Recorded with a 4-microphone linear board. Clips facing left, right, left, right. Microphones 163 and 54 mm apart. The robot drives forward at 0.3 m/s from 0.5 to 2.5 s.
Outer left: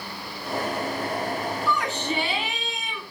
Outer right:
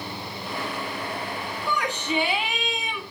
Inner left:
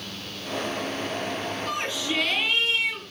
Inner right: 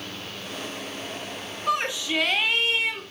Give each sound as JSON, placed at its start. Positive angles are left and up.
{"t": 1.7, "sound": "a shout", "side_deg": -15, "distance_m": 3.0}